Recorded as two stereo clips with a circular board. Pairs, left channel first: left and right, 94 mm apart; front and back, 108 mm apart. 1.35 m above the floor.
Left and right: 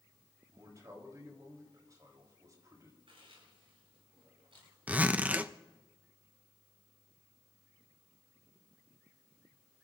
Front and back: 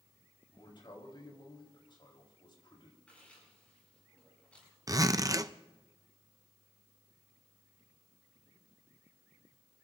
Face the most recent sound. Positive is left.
turn(degrees=-150)